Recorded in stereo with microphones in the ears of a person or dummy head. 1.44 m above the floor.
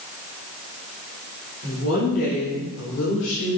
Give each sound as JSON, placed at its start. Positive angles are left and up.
{"t": 1.6, "sound": "a woman speaking", "side_deg": 50, "distance_m": 3.0}